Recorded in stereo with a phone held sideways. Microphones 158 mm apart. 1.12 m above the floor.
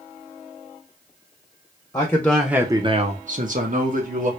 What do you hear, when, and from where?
1.9 s a man speaking: 20° left (ahead or behind), 1.0 m; by 4.3 s 60° right (ahead or behind), 1.7 m